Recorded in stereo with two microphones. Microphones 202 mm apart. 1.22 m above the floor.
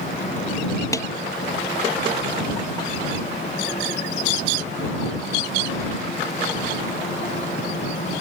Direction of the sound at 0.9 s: 15° left (ahead or behind).